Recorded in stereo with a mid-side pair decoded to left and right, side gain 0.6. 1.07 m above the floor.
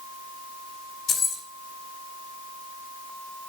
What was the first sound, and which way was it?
Keys jangling, 45° left.